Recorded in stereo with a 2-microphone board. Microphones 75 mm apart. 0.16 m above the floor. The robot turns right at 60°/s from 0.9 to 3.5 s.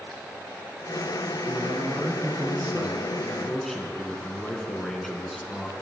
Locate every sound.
1.5 s a man speaking: 115° right, 1.4 m; by 5.7 s 10° left, 1.4 m